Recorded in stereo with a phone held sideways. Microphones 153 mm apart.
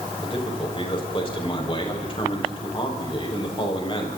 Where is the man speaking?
35° left (ahead or behind), 6.5 m.